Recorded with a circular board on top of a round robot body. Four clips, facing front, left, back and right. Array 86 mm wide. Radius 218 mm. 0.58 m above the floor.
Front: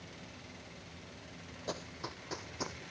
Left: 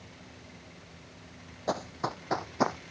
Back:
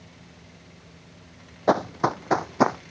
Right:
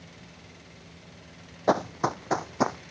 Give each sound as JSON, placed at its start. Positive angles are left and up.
{"t": 1.7, "sound": "running footsteps", "azimuth_deg": -155}